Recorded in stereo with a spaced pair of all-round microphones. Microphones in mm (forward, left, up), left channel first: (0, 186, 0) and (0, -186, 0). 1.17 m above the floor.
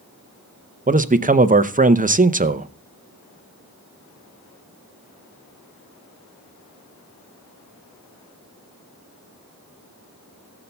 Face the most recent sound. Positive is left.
turn(degrees=-25)  # may be behind; listen again after turning